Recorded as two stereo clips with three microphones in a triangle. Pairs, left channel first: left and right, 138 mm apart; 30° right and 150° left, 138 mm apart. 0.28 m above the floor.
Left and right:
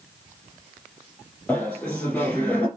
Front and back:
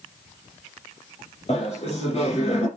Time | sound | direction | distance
1.5 | laughter | 10° left | 5.5 m